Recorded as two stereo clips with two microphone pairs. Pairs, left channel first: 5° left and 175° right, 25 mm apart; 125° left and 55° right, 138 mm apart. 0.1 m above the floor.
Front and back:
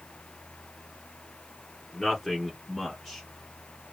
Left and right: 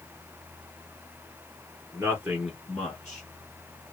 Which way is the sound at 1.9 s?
80° right.